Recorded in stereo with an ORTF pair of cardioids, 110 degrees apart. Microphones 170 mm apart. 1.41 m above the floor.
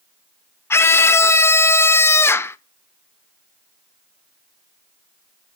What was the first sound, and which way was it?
A scream, 15° left.